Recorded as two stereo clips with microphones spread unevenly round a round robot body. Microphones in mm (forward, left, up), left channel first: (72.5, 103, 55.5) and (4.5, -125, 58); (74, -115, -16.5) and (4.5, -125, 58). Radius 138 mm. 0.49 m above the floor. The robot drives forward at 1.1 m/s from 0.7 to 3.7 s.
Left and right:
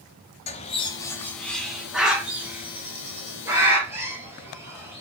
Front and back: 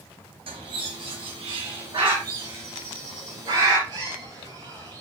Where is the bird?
140° left, 0.9 m; by 5.0 s 170° left, 4 m.